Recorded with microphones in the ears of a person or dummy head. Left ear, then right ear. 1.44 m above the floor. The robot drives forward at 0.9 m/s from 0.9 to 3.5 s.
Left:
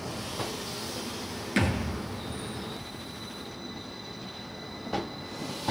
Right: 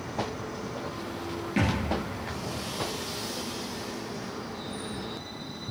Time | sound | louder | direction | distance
1.6 | a thud | left 1 dB | 50° left (ahead or behind) | 2 m